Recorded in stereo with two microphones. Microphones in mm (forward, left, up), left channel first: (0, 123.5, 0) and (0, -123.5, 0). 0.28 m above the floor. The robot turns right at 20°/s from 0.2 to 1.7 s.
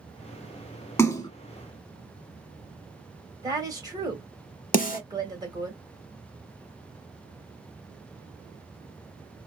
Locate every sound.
1.0 s a splash: 10° left (ahead or behind), 0.5 m; by 1.3 s 15° left (ahead or behind), 0.5 m
3.4 s a woman speaking: 15° right (ahead or behind), 1.2 m
4.7 s a snare drum: 35° left (ahead or behind), 0.7 m